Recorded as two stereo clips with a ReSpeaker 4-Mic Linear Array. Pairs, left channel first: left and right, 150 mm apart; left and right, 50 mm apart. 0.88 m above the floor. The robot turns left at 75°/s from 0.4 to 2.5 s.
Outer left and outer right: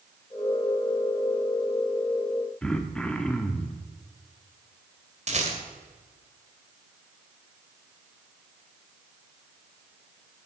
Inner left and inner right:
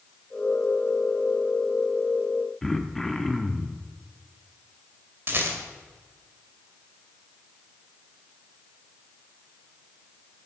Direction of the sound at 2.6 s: 5° left (ahead or behind).